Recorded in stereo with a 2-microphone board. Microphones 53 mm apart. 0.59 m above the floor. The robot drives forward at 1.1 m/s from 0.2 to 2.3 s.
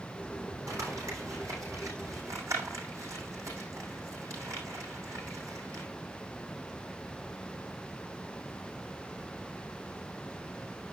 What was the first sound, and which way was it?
Crumpling, 85° right.